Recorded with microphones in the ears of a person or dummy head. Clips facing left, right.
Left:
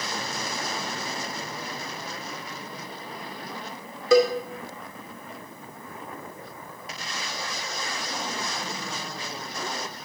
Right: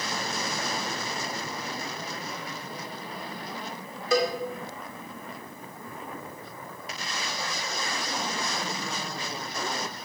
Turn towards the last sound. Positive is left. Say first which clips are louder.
# left 7 dB
turn(degrees=70)  # may be behind; listen again after turning